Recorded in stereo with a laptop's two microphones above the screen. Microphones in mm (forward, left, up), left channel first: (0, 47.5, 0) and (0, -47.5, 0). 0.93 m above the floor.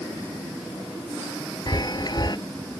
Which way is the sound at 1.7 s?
45° left (ahead or behind).